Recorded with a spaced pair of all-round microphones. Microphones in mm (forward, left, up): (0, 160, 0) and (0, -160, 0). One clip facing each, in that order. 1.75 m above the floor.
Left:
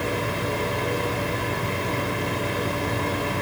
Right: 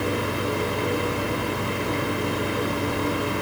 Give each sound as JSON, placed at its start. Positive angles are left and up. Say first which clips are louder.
{"t": 0.0, "sound": "a fan", "louder": "right 2 dB", "side_deg": -15, "distance_m": 6.0}